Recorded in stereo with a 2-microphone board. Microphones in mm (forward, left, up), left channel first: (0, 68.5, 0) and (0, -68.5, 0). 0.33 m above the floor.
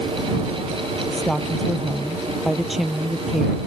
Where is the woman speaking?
5° left (ahead or behind); by 3.6 s 5° right (ahead or behind).